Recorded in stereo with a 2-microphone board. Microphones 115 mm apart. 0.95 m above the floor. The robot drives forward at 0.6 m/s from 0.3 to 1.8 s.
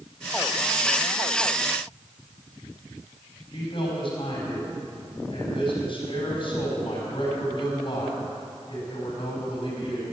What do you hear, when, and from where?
3.5 s a man speaking: 50° left (ahead or behind), 5 m